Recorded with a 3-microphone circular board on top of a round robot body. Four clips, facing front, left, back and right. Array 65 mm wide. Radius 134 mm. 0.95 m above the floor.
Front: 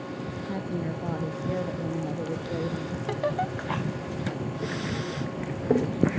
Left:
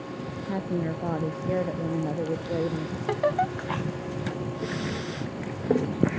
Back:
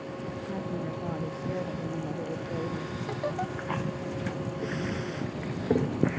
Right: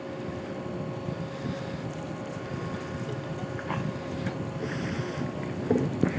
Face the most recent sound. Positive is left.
turn(degrees=80)